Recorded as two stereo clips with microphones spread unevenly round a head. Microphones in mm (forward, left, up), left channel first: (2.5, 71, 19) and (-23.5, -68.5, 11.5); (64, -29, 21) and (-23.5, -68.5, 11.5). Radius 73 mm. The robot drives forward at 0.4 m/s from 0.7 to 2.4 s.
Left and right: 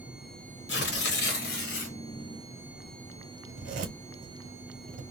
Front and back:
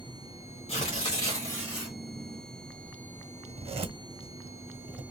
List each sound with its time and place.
0.7 s tearing paper: 80° left, 1.1 m; by 2.0 s 105° left, 1.1 m
3.5 s a zipper: 135° right, 1.1 m